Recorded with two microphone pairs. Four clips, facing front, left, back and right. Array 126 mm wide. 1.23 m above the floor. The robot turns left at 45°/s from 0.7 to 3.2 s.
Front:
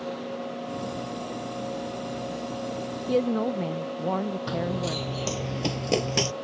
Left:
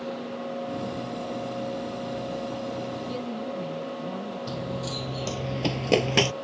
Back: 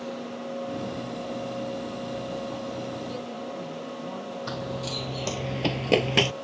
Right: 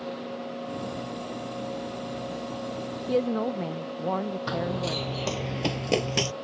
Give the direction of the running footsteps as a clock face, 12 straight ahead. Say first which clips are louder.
Right 4 dB, front 4 dB; 3 o'clock.